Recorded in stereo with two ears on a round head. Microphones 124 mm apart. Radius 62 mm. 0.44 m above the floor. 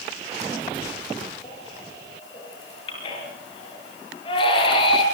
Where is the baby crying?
40° left (ahead or behind), 7 m.